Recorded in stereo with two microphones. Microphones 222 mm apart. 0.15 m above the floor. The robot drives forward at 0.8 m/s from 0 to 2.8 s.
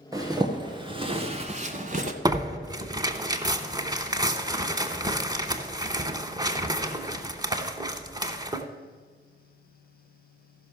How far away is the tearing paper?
About 0.9 m.